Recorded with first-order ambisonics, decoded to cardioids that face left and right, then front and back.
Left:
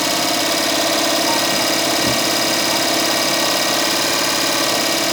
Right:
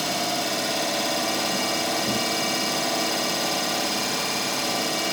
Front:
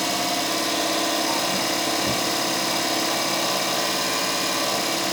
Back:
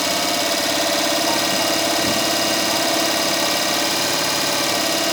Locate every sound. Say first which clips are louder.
0.0 s an engine running: left 8 dB, back 4 dB; 110° left, 2.0 m